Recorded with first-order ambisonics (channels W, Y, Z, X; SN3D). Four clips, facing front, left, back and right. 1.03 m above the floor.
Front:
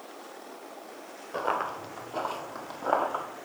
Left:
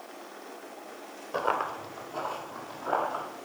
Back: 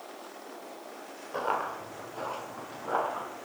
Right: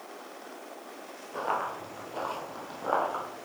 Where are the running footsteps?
80° left, 1.1 m; by 3.2 s 20° right, 3 m.